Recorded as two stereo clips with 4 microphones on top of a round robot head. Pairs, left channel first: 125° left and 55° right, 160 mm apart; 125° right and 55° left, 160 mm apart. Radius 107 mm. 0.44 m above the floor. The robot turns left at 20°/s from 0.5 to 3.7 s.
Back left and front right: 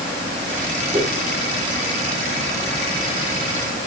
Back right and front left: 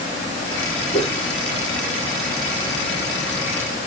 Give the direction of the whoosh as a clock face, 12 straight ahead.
3 o'clock.